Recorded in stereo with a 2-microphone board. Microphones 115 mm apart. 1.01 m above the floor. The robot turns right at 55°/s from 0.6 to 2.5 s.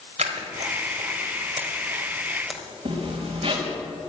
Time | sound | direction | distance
0.2 | scissors | 75° right (ahead or behind) | 2 m
2.9 | a zipper | 55° right (ahead or behind) | 4.5 m